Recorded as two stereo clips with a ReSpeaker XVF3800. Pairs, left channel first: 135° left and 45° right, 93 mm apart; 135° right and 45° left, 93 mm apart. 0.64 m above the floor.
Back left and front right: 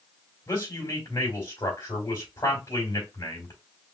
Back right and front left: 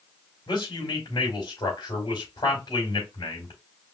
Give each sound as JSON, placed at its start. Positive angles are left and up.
{"t": 0.5, "sound": "a man speaking", "azimuth_deg": -175, "distance_m": 3.5}